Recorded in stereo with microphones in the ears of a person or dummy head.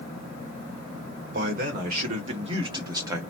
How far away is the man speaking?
About 1.5 m.